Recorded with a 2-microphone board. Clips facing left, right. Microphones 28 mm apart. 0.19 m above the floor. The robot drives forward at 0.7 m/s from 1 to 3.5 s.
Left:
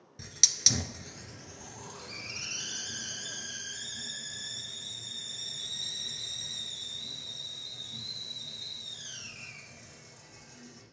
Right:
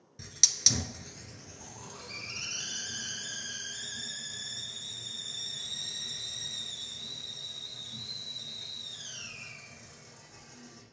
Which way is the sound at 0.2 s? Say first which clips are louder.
Even; 10° left (ahead or behind).